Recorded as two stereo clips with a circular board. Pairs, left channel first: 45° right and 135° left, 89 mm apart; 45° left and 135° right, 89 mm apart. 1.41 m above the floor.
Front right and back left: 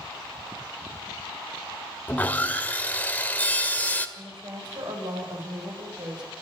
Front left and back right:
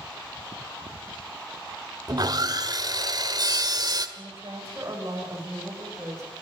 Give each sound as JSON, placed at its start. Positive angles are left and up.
{"t": 2.1, "sound": "sawing", "azimuth_deg": -110, "distance_m": 1.7}
{"t": 4.2, "sound": "a woman speaking", "azimuth_deg": 165, "distance_m": 8.0}